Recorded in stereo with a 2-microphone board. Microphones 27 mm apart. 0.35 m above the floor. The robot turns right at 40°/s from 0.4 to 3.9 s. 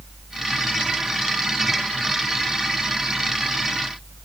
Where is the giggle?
No giggle in this recording.